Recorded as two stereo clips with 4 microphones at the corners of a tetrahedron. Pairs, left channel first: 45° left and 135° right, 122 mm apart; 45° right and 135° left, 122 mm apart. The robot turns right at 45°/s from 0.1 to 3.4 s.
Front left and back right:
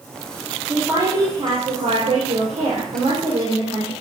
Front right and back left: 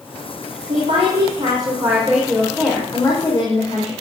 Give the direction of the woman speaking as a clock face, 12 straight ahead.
7 o'clock.